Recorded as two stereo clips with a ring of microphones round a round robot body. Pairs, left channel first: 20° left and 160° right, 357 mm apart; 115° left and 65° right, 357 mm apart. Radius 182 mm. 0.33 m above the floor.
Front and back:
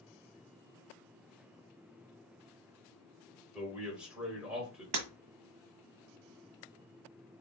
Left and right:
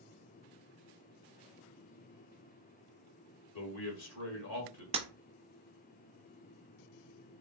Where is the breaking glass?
140° right, 1.2 m.